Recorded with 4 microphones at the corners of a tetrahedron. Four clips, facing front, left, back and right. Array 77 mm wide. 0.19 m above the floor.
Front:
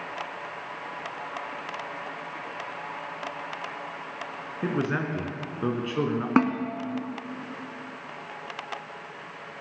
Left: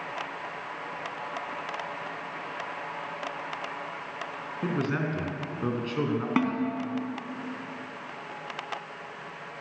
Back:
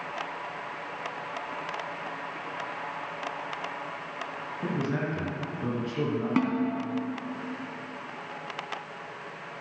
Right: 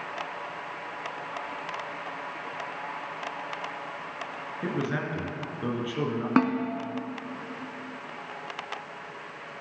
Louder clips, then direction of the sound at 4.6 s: Left 1 dB, front 3 dB; 15° left.